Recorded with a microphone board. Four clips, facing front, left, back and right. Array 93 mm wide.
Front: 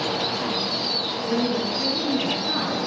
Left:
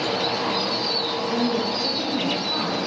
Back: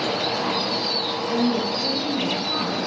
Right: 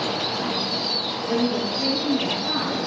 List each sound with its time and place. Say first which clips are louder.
1.3 s a woman speaking: right 2 dB, back 1 dB; 40° right, 6.5 m